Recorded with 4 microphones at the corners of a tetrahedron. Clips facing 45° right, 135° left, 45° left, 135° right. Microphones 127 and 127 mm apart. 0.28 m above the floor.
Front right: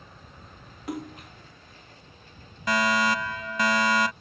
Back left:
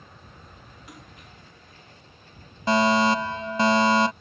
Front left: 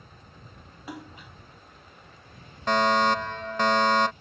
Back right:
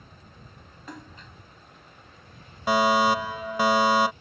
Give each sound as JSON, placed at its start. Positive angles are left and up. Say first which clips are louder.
{"t": 0.9, "sound": "a splash", "louder": "front right 16 dB, front left 3 dB", "azimuth_deg": -35}
{"t": 2.7, "sound": "a fire alarm", "louder": "back left 5 dB, back right 1 dB", "azimuth_deg": 150}